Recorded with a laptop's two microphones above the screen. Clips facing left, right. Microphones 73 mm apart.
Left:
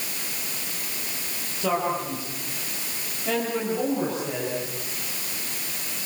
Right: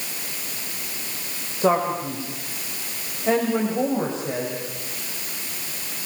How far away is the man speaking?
About 6 m.